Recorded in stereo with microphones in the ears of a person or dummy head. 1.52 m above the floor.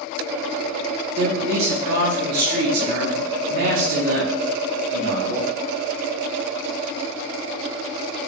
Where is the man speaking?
45° right (ahead or behind), 1.4 m.